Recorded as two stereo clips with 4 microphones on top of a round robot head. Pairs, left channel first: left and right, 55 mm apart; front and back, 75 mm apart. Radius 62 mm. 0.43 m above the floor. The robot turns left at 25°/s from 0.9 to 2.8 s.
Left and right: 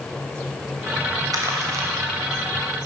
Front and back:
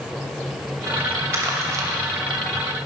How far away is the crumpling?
About 0.9 m.